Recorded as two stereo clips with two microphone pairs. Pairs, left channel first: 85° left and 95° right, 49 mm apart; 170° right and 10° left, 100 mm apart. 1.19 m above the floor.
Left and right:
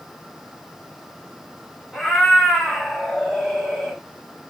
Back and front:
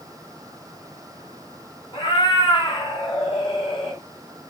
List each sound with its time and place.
1.9 s a cat meowing: 170° left, 1.5 m